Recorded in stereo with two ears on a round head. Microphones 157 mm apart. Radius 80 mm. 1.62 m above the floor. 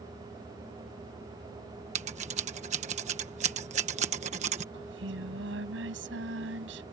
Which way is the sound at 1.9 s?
40° right (ahead or behind).